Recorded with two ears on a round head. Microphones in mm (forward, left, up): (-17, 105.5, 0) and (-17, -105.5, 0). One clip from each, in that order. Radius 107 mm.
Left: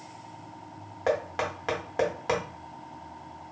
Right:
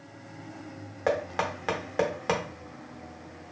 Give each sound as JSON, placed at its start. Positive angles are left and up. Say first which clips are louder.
{"t": 1.1, "sound": "knocking", "louder": "even", "side_deg": -5, "distance_m": 0.5}